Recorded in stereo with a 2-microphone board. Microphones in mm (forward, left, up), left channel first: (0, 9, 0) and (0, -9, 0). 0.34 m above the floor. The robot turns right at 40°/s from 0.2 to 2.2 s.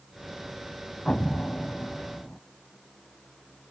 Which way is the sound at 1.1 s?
60° left.